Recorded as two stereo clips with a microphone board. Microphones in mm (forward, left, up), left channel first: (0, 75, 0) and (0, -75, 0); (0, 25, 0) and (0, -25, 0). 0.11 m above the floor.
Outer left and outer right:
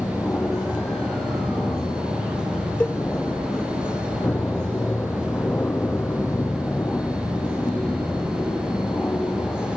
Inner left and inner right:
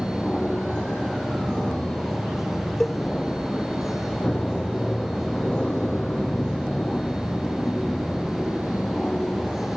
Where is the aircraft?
15° left (ahead or behind).